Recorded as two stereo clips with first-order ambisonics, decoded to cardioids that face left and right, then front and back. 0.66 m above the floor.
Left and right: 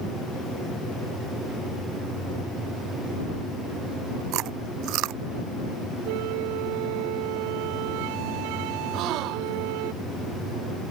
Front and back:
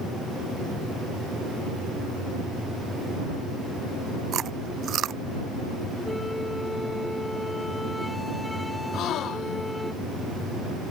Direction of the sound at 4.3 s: 125° right.